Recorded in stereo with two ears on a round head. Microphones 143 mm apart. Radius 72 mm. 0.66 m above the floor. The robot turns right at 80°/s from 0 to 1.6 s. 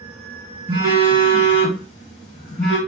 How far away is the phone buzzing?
About 1.7 m.